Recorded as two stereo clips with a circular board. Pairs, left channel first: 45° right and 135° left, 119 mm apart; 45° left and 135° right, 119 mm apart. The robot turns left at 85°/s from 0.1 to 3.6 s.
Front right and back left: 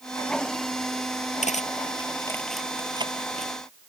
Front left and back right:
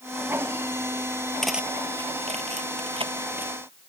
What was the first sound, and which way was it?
Cutlery clinking, 40° right.